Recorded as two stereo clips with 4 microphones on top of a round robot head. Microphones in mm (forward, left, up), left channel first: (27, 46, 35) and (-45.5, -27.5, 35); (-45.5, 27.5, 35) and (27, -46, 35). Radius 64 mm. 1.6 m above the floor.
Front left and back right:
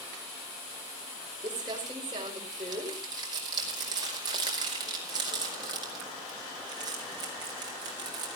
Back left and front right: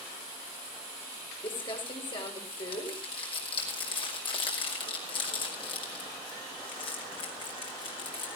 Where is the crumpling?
175° left, 5 m.